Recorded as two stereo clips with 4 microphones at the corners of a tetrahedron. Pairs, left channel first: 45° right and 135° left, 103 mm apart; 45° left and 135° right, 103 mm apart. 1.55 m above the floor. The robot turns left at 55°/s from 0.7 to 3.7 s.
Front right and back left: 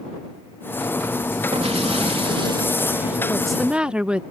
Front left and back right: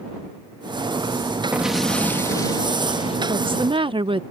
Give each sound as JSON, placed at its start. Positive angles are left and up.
{"t": 1.5, "sound": "an explosion", "azimuth_deg": 150}
{"t": 3.3, "sound": "a woman speaking", "azimuth_deg": -125}